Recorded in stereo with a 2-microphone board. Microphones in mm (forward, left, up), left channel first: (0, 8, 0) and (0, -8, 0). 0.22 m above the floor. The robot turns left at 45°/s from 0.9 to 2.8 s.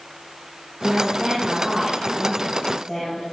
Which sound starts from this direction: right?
A woman speaking, at 0.8 s.